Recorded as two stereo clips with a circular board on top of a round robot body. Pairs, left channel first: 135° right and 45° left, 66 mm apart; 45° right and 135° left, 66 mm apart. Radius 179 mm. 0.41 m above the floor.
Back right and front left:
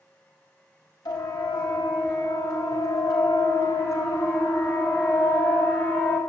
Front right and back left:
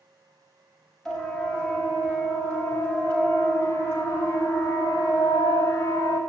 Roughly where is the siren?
Behind right.